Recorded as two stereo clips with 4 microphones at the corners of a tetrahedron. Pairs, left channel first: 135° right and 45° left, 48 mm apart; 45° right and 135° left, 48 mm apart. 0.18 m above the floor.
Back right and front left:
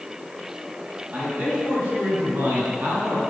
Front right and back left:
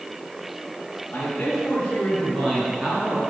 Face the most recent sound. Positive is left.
turn(degrees=75)